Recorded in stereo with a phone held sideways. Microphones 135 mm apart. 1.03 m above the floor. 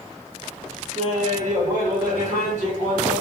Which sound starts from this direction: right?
Laughter, at 0.9 s.